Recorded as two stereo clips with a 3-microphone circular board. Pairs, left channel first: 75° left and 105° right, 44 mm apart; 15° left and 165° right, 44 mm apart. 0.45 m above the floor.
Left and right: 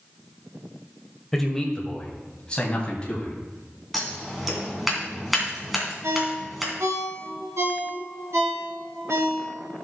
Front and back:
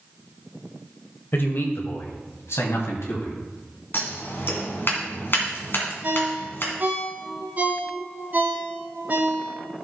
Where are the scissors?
15° right, 2.5 m.